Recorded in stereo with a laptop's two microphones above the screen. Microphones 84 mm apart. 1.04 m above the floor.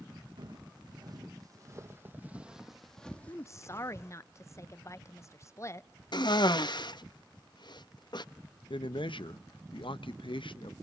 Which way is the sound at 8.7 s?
80° left.